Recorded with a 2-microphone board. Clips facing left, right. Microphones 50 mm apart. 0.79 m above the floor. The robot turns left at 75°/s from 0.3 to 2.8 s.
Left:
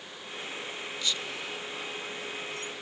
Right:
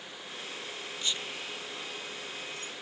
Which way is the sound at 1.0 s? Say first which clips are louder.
Left 1 dB; 35° right (ahead or behind).